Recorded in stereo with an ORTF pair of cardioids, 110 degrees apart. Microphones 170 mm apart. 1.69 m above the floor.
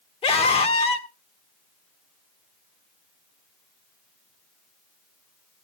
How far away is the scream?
About 2.5 m.